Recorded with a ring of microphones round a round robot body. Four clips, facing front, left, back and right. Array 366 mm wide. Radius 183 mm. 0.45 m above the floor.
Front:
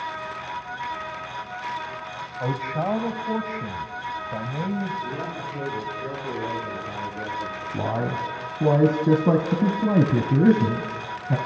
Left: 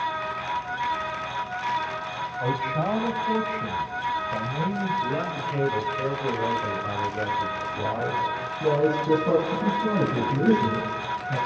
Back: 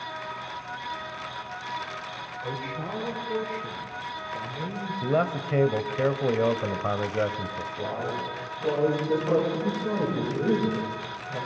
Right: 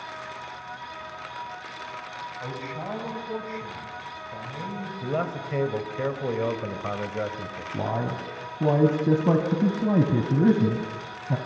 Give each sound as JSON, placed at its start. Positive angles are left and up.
{"t": 2.4, "sound": "a man speaking", "azimuth_deg": 30, "distance_m": 3.0}
{"t": 5.0, "sound": "a man speaking", "azimuth_deg": -160, "distance_m": 2.5}
{"t": 7.7, "sound": "a man speaking", "azimuth_deg": -30, "distance_m": 3.0}